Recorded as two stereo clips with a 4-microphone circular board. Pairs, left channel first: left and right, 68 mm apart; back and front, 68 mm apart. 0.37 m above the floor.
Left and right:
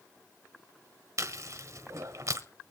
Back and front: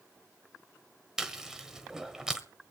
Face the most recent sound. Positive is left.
turn(degrees=-80)